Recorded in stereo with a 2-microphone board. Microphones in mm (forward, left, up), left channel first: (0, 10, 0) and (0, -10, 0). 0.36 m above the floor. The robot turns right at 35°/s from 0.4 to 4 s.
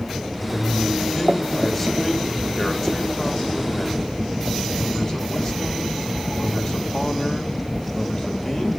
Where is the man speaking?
20° right, 1.7 m; by 8.7 s 100° left, 1.7 m.